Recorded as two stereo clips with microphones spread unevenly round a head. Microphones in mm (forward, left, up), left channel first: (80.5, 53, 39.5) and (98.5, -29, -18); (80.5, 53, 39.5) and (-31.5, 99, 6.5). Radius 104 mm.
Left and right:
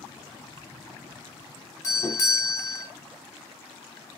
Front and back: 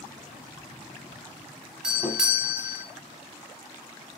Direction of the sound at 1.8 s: 160° right.